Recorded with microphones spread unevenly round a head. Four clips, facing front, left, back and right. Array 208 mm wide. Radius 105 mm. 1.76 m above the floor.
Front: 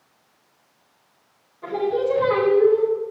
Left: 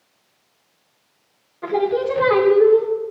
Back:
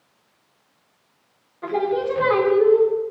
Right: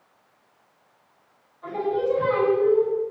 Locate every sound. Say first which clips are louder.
1.6 s singing: left 5 dB, even; 100° left, 3 m